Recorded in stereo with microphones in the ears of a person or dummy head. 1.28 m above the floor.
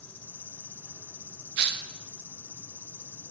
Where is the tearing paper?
65° right (ahead or behind), 0.9 m.